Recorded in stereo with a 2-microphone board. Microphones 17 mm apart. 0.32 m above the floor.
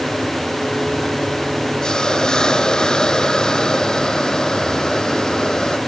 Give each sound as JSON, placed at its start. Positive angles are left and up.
{"t": 1.8, "sound": "a hiss", "side_deg": 40}